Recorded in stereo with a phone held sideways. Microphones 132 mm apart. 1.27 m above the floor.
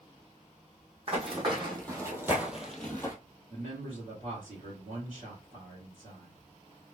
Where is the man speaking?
65° right (ahead or behind), 2.5 m.